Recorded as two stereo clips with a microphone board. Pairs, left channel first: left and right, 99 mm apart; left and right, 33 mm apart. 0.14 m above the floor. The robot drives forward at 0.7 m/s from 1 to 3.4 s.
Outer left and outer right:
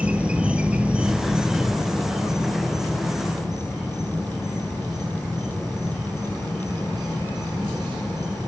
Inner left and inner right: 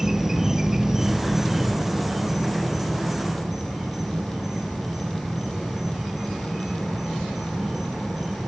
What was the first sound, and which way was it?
An insect, 10° right (ahead or behind).